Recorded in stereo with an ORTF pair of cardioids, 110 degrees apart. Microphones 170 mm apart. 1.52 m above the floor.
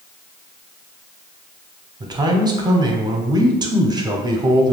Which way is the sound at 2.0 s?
25° right.